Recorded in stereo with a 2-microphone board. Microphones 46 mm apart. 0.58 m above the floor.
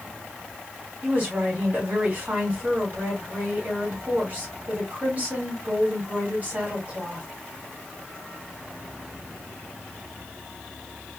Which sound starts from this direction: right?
A woman speaking, at 1.0 s.